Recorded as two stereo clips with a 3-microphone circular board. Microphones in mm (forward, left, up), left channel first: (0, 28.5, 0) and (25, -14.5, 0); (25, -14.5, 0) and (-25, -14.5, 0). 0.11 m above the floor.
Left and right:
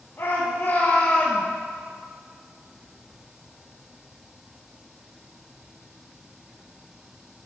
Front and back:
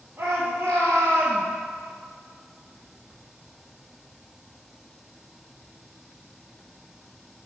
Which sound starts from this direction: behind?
A shout, at 0.2 s.